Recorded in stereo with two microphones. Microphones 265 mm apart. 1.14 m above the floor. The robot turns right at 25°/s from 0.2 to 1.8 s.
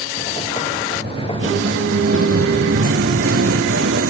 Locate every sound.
0.9 s singing: 35° right (ahead or behind); by 4.1 s 55° right (ahead or behind)